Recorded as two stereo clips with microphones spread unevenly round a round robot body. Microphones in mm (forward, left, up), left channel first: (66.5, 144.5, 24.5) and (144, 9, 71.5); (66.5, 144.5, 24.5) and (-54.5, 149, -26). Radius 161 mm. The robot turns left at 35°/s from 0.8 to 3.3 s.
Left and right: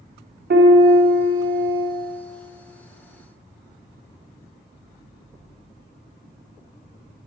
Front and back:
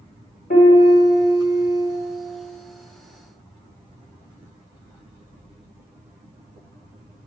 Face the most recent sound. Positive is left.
turn(degrees=-135)